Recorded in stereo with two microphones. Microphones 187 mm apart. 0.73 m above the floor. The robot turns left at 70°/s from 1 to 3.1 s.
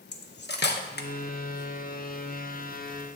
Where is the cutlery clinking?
65° left (ahead or behind), 0.6 m.